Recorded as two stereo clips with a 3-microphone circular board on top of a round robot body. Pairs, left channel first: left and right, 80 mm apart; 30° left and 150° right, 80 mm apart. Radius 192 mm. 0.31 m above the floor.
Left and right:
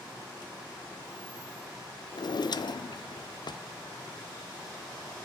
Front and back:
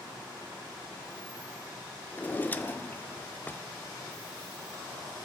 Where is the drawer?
95° left, 0.5 m.